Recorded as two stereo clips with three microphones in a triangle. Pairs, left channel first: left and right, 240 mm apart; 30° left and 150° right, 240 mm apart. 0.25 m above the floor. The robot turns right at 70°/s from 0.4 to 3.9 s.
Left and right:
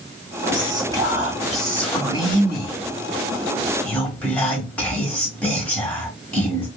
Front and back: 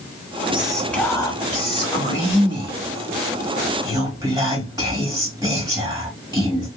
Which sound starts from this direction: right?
Whispering, at 0.5 s.